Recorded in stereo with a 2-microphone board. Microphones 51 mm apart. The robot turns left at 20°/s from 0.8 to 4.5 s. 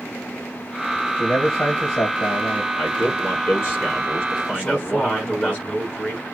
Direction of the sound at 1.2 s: 60° left (ahead or behind).